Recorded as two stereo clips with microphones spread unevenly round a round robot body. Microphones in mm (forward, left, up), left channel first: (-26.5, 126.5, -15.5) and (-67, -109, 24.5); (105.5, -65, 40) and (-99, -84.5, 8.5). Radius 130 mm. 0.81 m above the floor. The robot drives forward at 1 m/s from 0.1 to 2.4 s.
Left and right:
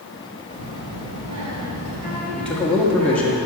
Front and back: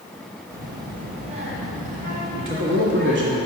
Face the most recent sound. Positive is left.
turn(degrees=160)